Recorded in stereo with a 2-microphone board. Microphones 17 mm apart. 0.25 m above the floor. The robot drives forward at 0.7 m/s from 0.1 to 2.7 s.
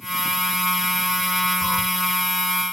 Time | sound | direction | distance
1.6 | a cat meowing | 30° left (ahead or behind) | ?